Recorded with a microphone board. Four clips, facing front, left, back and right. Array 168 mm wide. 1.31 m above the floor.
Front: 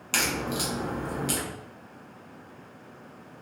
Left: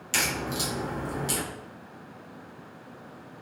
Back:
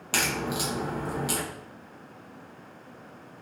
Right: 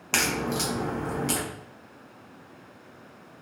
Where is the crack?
105° right, 0.8 m.